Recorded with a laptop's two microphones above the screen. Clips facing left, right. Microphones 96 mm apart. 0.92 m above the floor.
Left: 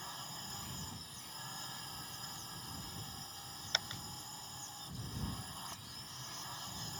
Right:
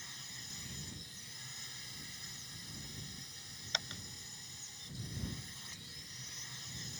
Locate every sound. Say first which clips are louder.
0.0 s a drone: left 7 dB; 45° left (ahead or behind)